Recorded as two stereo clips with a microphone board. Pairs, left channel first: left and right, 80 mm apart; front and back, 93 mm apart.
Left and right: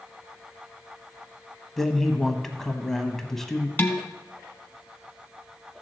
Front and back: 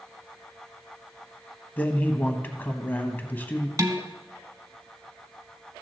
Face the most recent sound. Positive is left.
turn(degrees=150)